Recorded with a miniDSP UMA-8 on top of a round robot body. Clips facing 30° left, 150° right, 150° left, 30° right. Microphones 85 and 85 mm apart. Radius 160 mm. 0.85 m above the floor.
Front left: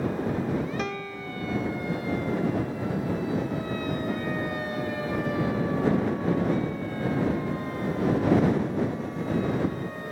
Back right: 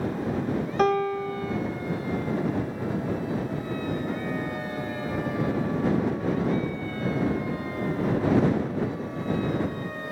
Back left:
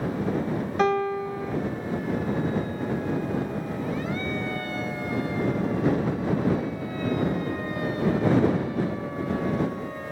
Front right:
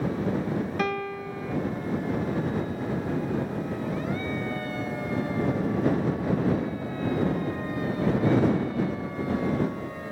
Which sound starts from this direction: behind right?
A piano, at 0.8 s.